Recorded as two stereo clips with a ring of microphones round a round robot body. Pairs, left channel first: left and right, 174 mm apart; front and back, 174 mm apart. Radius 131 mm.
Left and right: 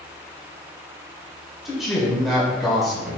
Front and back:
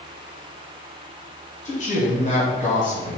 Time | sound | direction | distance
1.6 | a man speaking | straight ahead | 1.8 m